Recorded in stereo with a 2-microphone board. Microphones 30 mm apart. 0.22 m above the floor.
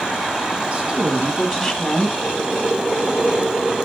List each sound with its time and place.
0.7 s a woman speaking: 40° right (ahead or behind), 2.0 m; by 2.1 s 20° left (ahead or behind), 2 m
2.2 s boiling: 35° right (ahead or behind), 3.5 m